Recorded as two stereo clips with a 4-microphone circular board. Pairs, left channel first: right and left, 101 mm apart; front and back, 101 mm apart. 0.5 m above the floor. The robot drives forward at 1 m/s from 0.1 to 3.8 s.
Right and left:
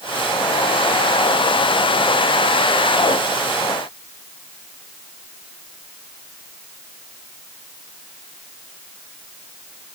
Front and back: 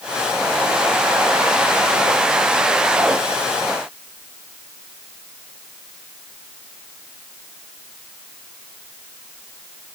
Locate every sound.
Only background noise.